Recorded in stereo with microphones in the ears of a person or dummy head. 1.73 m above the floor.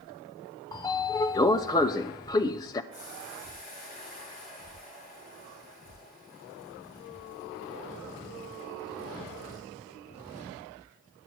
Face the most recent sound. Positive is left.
turn(degrees=40)  # may be behind; listen again after turning